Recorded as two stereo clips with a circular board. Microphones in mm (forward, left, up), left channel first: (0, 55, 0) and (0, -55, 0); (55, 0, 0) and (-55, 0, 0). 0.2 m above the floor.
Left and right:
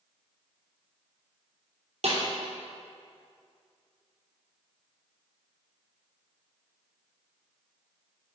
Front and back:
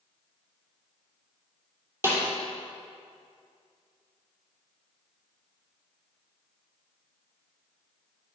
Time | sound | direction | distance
2.0 | a snare drum | 110° right | 3 m